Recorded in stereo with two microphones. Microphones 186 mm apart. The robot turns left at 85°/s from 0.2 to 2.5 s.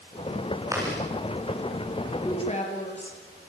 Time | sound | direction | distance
0.7 | chewing | 15° right (ahead or behind) | 8.5 m
2.2 | a woman speaking | 15° left (ahead or behind) | 5 m